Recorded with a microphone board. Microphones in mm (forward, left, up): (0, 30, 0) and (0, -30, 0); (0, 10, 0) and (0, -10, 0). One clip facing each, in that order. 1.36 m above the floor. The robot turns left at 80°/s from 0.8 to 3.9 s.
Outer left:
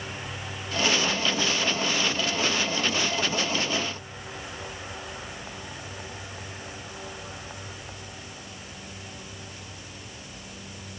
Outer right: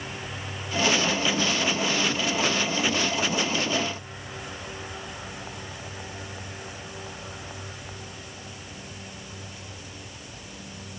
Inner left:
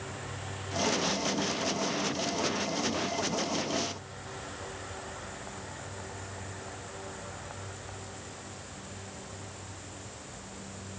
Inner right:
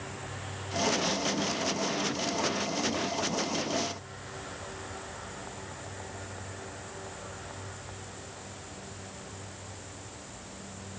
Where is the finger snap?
No finger snap in this recording.